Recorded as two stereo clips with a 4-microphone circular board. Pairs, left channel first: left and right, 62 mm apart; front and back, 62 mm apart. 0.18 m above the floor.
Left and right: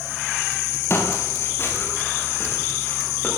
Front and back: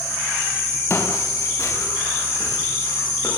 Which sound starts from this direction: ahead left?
Footsteps, at 0.9 s.